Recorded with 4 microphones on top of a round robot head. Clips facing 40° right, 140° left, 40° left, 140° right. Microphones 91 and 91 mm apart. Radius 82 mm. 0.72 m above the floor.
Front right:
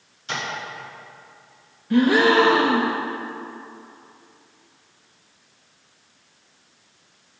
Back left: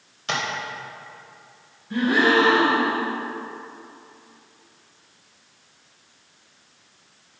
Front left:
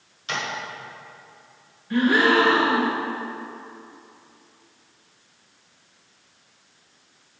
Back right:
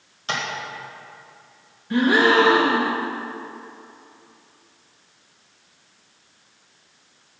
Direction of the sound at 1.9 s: 70° right.